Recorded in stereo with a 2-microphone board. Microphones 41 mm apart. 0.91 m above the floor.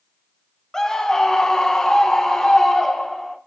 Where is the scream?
10° left (ahead or behind), 0.9 m.